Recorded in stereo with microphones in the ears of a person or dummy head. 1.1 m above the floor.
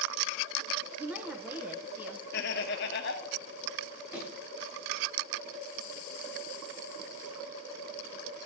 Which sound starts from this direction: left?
Laughter, at 2.3 s.